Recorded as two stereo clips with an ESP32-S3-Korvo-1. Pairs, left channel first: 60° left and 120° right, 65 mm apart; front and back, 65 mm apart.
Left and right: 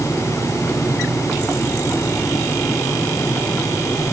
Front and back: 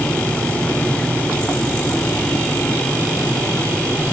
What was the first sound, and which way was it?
Only background noise.